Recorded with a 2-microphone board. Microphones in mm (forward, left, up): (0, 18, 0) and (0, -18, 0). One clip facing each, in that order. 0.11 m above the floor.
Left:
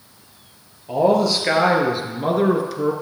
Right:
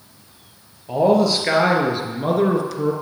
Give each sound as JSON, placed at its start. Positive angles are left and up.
{"t": 0.9, "sound": "a man speaking", "side_deg": 0, "distance_m": 2.5}